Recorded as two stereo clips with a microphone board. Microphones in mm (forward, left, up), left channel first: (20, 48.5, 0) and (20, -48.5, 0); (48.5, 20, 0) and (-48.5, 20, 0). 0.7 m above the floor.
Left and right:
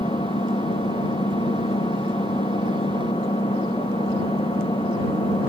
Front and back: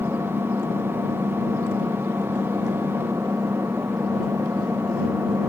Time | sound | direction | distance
0.0 | an engine running | 115° left | ?